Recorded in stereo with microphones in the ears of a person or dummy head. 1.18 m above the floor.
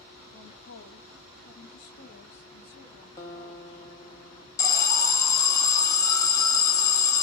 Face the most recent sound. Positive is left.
turn(degrees=15)  # may be behind; listen again after turning